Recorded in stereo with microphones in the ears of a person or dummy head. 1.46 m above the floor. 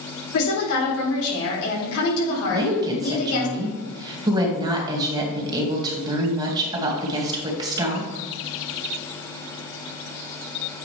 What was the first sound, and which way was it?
A woman speaking, 75° left (ahead or behind).